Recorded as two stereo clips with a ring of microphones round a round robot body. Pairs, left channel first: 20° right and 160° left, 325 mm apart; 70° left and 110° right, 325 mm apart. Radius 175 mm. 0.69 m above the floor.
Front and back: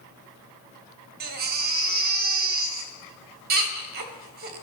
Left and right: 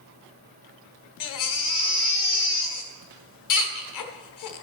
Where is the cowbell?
No cowbell in this recording.